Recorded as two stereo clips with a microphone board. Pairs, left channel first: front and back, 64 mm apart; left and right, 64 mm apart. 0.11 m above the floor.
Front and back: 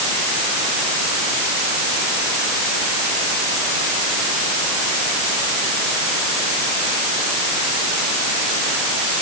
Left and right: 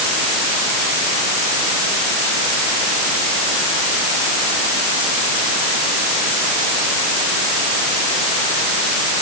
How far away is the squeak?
I don't hear a squeak.